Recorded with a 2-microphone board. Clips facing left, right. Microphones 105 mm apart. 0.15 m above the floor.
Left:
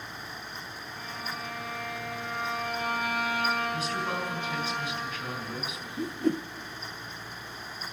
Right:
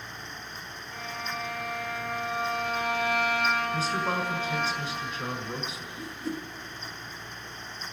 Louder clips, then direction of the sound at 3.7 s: Right 3 dB; 30° right (ahead or behind).